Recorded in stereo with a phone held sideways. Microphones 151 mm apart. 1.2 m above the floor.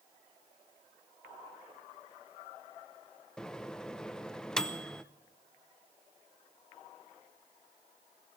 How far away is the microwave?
About 0.7 m.